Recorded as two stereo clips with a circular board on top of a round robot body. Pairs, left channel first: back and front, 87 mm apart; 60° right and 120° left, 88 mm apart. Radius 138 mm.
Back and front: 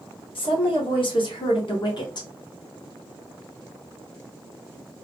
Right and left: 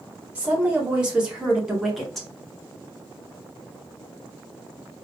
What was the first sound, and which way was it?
A woman speaking, 165° right.